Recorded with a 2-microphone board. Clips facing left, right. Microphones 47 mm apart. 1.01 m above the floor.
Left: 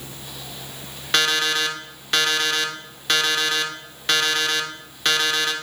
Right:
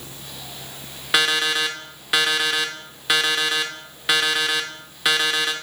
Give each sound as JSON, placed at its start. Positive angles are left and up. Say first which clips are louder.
{"t": 1.1, "sound": "an alarm clock", "louder": "right 1 dB", "side_deg": -5, "distance_m": 0.7}